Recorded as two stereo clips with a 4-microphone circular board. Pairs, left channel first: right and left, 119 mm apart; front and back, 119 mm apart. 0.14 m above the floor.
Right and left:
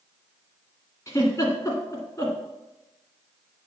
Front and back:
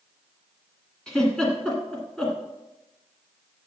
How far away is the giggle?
About 1.8 m.